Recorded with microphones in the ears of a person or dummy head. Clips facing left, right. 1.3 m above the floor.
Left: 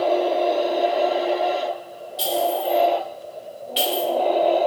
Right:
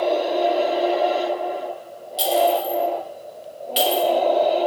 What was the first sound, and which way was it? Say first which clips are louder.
A clink: right 4 dB; 55° right (ahead or behind).